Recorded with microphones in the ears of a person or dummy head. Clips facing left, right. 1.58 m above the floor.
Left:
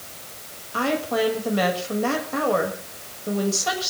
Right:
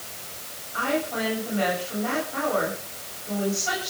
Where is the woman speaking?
85° left, 6.5 m.